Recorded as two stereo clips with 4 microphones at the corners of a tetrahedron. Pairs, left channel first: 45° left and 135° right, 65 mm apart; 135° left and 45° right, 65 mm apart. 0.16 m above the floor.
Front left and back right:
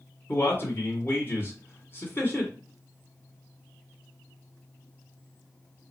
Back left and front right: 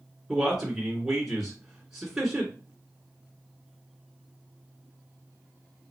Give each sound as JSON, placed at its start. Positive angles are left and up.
{"t": 0.3, "sound": "a man speaking", "azimuth_deg": 35, "distance_m": 1.9}